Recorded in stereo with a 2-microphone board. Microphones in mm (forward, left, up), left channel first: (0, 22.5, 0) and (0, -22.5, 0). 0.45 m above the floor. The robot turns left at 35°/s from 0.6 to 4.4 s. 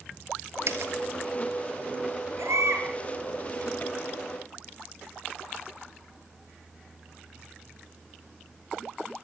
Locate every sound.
0.7 s a dropped coin: 65° right (ahead or behind), 2.5 m; by 0.9 s 55° right (ahead or behind), 2.5 m
2.4 s a baby crying: 85° right, 5 m; by 2.9 s 70° right (ahead or behind), 5 m